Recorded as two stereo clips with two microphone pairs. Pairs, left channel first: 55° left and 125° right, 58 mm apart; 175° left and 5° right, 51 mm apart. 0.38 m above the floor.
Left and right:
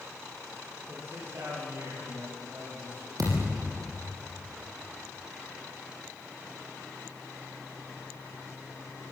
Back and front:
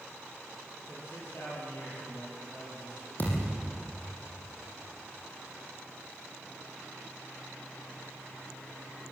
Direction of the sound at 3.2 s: 135° right.